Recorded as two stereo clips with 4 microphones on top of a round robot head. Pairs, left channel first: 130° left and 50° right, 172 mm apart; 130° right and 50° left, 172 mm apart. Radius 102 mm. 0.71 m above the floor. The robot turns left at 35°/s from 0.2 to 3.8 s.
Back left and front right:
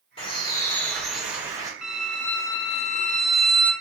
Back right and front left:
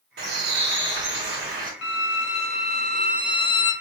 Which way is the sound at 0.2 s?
70° left.